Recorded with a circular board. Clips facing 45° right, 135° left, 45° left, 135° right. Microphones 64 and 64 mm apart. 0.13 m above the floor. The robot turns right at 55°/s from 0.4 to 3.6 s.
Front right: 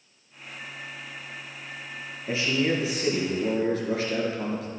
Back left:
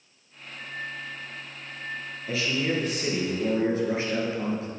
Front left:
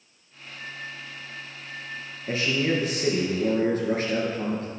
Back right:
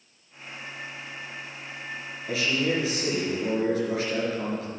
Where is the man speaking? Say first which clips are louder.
Front right 2 dB, front left 1 dB; 5° left, 2.5 m; by 4.7 s 80° left, 2.5 m.